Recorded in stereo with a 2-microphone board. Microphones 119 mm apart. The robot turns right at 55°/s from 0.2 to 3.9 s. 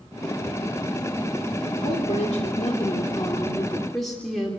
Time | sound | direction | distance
1.8 | a woman speaking | 65° left | 3 m